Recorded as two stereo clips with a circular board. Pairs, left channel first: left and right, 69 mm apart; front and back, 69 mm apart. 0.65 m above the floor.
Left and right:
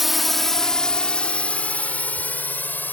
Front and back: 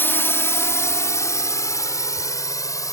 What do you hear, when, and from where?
0.0 s a drone: 5° right; by 2.9 s 30° left